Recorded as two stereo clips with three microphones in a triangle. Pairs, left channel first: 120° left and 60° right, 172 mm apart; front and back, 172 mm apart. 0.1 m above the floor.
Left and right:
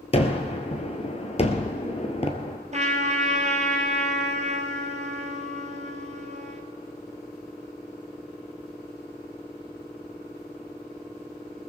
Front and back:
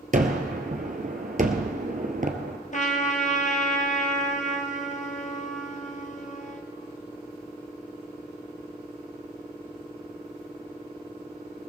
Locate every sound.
0.1 s a gunshot: 160° left, 1.3 m
2.7 s a trumpet: 25° right, 1.5 m